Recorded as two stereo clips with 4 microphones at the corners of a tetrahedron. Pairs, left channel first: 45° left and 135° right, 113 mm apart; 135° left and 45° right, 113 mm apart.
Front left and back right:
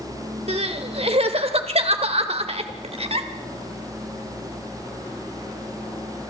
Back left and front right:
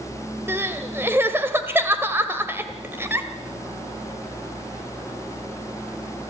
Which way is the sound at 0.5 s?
115° right.